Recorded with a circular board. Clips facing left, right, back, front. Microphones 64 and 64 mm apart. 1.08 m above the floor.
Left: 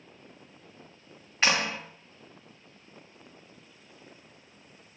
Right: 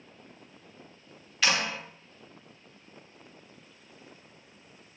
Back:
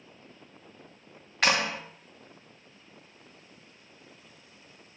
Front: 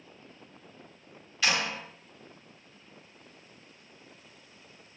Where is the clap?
145° left, 1.1 m.